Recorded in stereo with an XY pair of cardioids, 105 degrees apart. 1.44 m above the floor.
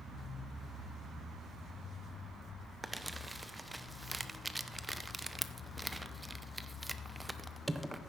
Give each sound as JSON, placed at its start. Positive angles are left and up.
{"t": 2.8, "sound": "crumpling", "azimuth_deg": -10, "distance_m": 0.7}